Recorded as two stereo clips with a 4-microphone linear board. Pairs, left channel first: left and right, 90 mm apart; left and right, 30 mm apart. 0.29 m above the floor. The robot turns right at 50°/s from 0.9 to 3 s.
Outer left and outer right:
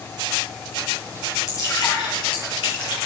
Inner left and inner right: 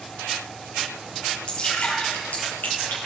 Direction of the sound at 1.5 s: 35° left (ahead or behind).